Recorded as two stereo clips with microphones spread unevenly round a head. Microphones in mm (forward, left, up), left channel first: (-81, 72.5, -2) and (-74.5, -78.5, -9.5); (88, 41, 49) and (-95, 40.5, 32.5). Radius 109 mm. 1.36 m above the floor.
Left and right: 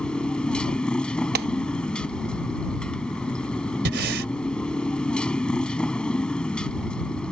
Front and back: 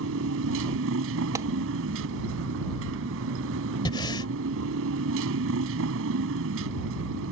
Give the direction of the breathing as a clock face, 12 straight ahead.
2 o'clock.